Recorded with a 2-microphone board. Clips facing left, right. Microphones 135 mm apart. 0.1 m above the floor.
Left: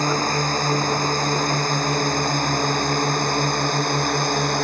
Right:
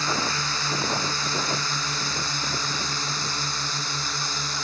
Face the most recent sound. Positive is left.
turn(degrees=60)  # may be behind; listen again after turning